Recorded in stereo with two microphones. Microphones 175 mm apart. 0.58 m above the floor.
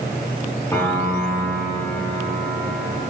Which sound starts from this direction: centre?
A piano, at 0.7 s.